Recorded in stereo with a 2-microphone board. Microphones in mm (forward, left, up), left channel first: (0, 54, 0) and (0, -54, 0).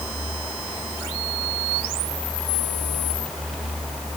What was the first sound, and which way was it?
Only background noise.